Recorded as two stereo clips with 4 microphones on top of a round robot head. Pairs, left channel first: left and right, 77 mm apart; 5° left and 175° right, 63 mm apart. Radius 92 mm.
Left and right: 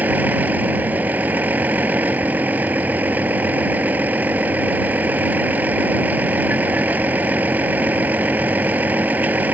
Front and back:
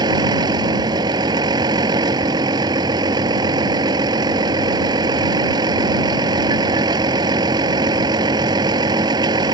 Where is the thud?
No thud in this recording.